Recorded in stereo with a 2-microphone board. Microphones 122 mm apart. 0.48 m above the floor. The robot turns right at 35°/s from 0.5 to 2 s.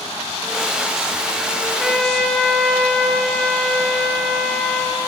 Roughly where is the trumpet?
Centre.